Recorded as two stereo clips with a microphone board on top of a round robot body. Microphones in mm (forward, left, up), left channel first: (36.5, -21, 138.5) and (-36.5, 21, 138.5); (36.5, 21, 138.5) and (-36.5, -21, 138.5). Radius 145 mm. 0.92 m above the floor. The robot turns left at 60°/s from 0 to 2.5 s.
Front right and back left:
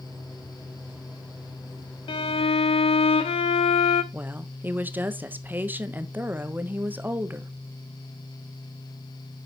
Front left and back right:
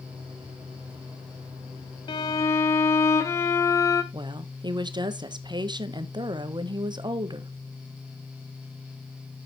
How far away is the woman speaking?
About 1.2 m.